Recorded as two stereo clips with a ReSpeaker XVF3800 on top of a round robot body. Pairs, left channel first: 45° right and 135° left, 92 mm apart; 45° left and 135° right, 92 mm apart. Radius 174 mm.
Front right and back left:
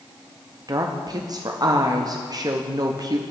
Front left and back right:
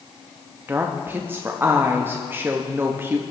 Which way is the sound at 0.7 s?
165° left.